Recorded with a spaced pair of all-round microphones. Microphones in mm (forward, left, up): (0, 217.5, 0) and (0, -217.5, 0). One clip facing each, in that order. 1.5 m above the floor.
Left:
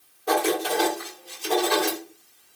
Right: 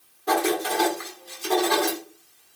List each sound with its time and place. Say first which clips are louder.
0.3 s writing: even; 35° right (ahead or behind), 1.9 m